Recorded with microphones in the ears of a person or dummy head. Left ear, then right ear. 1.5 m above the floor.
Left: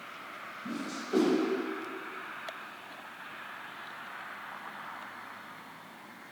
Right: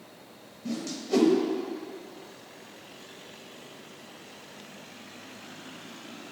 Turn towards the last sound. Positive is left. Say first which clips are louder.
# right 6 dB
turn(degrees=-70)  # may be behind; listen again after turning